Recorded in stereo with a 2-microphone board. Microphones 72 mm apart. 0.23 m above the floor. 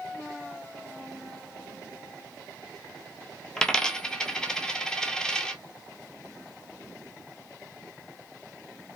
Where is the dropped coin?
10° left (ahead or behind), 0.6 m.